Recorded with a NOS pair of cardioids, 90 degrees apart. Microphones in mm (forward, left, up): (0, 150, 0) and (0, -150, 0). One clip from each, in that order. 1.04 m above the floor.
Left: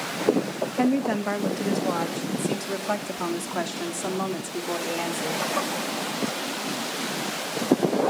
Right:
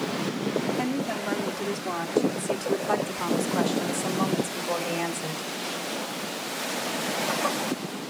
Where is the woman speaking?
50° left, 1.6 m; by 5.4 s 5° left, 3 m.